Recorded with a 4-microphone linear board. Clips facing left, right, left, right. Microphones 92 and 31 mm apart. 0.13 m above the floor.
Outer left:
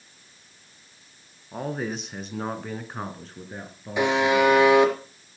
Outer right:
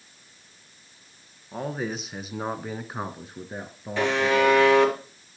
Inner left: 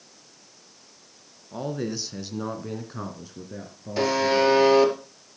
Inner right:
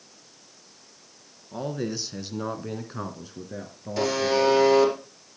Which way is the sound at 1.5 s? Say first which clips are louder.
Even, even; centre (ahead or behind).